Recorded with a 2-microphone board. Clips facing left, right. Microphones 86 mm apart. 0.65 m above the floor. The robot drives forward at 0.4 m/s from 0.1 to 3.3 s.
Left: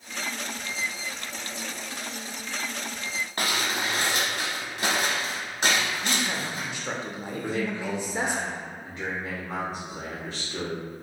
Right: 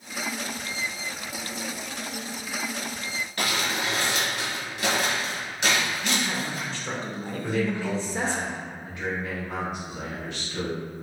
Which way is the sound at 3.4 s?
40° left (ahead or behind).